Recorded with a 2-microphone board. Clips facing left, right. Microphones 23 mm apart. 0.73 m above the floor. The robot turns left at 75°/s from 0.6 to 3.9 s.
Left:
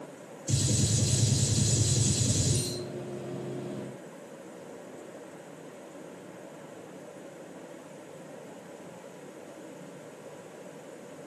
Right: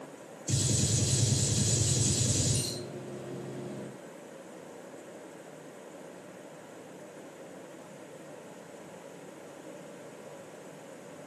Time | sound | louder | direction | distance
0.5 | a gunshot | left 1 dB | 10° left (ahead or behind) | 1.2 m